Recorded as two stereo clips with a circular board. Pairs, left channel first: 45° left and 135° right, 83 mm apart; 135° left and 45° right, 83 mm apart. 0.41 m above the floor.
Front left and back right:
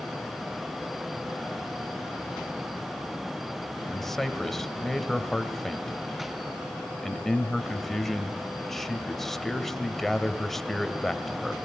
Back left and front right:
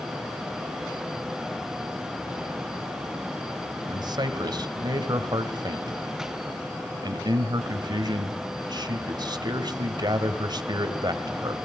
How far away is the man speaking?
About 1.9 m.